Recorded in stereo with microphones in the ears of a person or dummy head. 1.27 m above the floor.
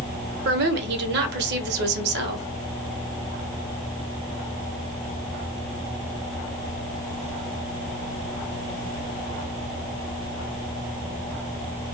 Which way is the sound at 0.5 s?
60° right (ahead or behind).